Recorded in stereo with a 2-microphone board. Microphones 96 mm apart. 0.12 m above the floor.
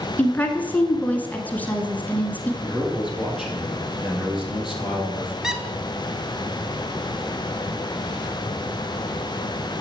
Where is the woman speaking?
20° left (ahead or behind), 1.2 m.